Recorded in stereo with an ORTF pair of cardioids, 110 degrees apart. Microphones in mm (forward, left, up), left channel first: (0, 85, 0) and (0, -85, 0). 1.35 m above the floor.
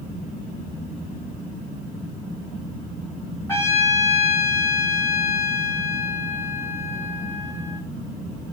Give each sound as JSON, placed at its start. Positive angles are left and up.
{"t": 3.5, "sound": "a trumpet", "azimuth_deg": 15, "distance_m": 5.5}